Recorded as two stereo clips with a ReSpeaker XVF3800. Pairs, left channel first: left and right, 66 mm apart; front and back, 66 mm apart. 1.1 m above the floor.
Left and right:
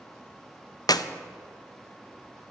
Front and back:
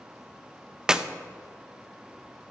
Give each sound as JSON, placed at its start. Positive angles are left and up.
{"t": 0.9, "sound": "a clap", "azimuth_deg": 100, "distance_m": 0.5}